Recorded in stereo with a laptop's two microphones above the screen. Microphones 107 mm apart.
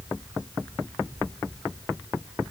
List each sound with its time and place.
Only background noise.